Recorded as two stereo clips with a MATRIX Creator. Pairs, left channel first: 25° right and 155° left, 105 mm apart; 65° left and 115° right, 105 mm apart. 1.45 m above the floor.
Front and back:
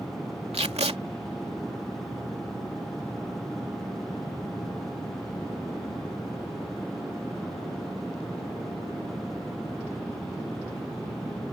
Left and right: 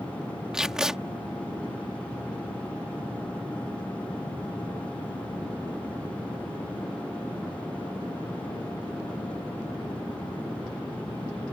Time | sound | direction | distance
0.5 | tape being pulled | 165° left | ?